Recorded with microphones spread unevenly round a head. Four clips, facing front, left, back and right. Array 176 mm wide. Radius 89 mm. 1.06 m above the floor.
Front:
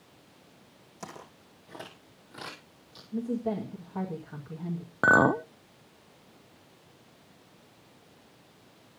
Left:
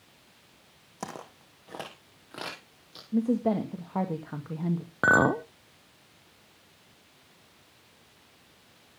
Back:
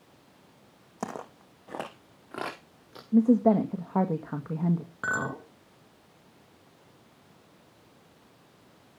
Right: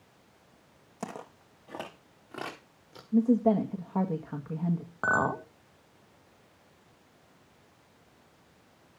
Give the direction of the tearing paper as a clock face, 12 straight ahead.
I don't hear tearing paper.